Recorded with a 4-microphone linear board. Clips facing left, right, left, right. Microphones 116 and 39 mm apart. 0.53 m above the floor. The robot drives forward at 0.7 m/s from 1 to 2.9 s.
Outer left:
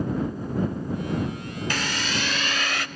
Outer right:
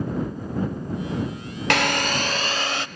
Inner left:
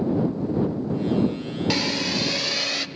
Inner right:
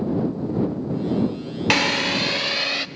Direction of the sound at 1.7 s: 65° right (ahead or behind).